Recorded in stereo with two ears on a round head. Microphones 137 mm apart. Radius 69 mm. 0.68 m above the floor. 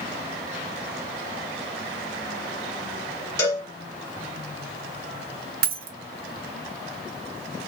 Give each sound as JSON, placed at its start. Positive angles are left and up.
{"t": 3.4, "sound": "a cowbell", "side_deg": 20, "distance_m": 2.5}
{"t": 5.6, "sound": "a dropped coin", "side_deg": -65, "distance_m": 2.0}